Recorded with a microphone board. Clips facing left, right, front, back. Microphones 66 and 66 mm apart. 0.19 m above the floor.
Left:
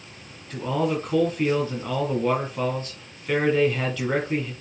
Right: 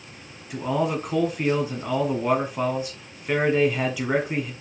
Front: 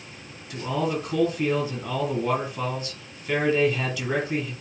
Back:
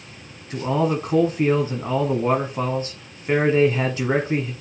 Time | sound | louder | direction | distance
0.5 | a man speaking | even, back 5 dB | 160° right | 1.6 m